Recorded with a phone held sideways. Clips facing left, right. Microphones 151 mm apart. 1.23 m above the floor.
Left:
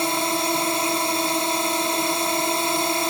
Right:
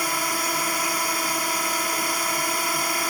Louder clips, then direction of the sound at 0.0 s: Left 5 dB; 25° left (ahead or behind).